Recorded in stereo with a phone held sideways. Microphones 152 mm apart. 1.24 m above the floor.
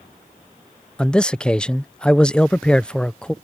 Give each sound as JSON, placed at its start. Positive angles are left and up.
{"t": 1.0, "sound": "a man speaking", "side_deg": 5}